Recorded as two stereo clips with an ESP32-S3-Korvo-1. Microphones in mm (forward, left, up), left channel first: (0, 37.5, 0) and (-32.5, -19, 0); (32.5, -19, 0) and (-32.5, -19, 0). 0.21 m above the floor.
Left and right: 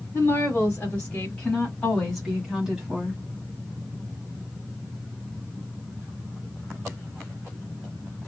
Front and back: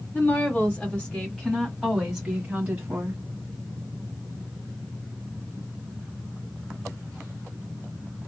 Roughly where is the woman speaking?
Ahead left.